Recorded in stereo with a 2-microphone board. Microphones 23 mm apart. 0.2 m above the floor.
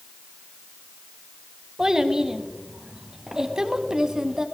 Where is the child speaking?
35° right (ahead or behind), 1.1 m.